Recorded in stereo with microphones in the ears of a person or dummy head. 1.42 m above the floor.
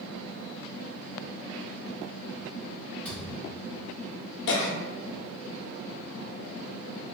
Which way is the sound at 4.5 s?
70° left (ahead or behind).